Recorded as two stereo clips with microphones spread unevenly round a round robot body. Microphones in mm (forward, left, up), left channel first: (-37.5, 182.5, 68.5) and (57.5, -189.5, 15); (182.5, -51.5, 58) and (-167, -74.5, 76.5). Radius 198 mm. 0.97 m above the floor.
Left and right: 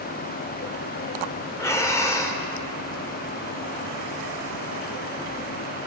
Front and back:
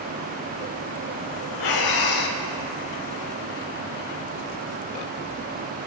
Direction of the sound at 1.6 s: 30° left.